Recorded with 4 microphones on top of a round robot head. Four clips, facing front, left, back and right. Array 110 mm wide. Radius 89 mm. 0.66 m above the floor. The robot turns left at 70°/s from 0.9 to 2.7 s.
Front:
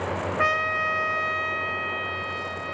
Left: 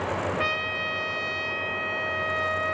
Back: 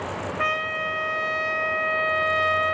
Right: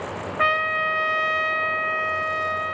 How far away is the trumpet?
About 0.5 m.